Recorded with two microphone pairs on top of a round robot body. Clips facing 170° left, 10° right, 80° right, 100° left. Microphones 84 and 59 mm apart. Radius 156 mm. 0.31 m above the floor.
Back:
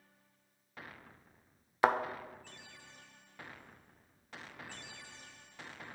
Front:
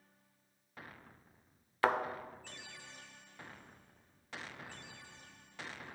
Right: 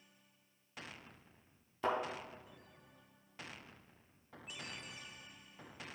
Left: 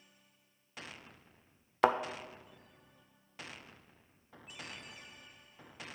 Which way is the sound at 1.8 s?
95° left.